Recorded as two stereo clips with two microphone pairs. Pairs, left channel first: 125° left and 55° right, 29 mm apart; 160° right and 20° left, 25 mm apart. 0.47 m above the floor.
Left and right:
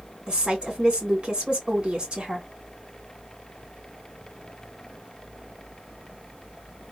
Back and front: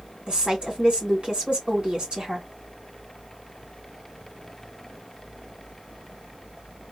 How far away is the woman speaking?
About 2 m.